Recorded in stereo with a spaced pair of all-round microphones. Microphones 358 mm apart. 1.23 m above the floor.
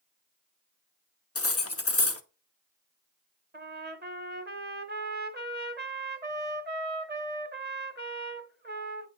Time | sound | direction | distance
1.4 | cutlery clinking | 45° left (ahead or behind) | 0.6 m
3.5 | a trumpet | 30° right (ahead or behind) | 0.7 m